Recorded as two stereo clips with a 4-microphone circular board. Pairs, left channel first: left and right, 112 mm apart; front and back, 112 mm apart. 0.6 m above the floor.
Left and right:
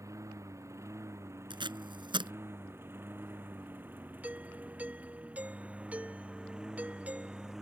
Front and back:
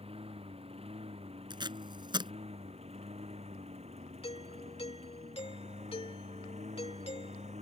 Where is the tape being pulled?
135° right.